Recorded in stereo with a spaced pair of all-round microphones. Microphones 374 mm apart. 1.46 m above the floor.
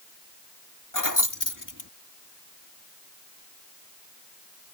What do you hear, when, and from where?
0.9 s keys jangling: 55° left (ahead or behind)